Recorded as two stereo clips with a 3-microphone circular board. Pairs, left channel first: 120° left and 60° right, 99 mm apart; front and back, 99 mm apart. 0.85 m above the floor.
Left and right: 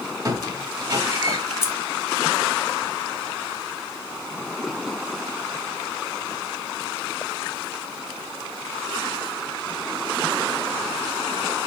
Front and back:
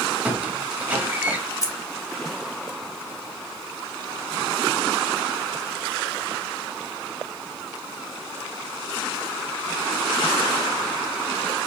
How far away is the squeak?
About 0.6 m.